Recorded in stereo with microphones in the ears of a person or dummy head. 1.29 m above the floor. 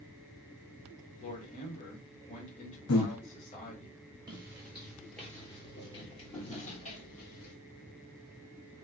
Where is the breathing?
75° left (ahead or behind), 0.8 m.